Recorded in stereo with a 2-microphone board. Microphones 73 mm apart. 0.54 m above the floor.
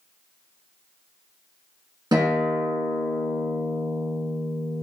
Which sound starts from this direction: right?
A guitar, at 2.1 s.